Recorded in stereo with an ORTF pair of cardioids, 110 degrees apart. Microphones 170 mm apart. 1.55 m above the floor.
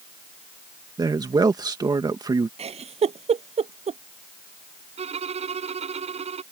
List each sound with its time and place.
1.0 s a man speaking: 25° right
2.6 s a giggle: 35° right
5.0 s a violin: 40° right